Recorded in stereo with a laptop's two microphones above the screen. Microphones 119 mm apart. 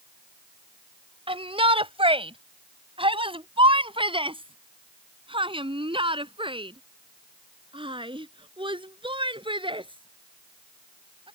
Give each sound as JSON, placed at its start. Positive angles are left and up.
{"t": 1.3, "sound": "a shout", "side_deg": -50}